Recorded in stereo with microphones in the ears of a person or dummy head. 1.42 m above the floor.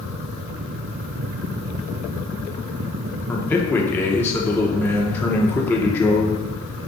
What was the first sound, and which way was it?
A man speaking, 15° left (ahead or behind).